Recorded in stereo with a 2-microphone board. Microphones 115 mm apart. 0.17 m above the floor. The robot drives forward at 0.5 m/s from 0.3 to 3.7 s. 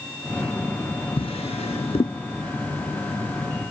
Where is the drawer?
60° left (ahead or behind), 0.6 m; by 2.2 s 55° left (ahead or behind), 0.6 m.